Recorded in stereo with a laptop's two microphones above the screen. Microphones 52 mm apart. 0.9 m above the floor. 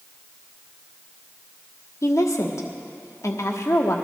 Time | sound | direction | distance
2.0 | a woman speaking | 80° left | 1.4 m